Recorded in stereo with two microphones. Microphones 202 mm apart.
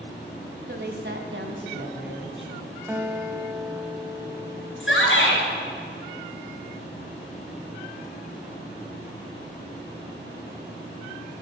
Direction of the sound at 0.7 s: 55° right (ahead or behind).